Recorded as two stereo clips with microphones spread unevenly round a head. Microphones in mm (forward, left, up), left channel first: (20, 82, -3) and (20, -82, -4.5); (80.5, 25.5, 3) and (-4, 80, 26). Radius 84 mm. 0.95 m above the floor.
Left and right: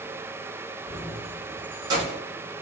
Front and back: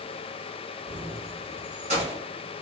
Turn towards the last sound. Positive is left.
turn(degrees=-135)